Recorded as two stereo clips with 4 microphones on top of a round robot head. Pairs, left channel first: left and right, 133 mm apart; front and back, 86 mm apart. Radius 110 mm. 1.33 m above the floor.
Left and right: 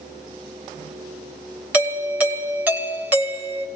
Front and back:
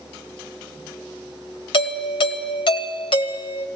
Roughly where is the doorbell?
Ahead.